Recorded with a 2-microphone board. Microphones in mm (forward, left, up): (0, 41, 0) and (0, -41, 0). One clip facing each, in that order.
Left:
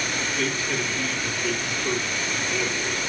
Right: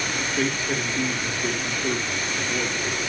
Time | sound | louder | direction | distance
0.4 | a man speaking | right 3 dB | 35° right (ahead or behind) | 3.5 m